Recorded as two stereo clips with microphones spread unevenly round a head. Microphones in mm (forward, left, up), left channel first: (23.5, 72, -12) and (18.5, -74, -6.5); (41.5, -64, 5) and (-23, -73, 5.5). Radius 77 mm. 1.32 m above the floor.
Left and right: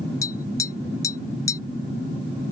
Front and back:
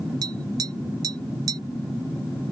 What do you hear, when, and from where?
0.2 s tapping: 155° left